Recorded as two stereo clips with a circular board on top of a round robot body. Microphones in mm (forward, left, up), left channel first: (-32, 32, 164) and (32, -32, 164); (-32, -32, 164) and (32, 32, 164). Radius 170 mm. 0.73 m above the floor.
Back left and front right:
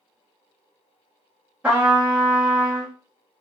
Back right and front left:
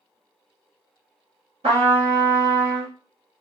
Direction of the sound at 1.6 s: 35° left.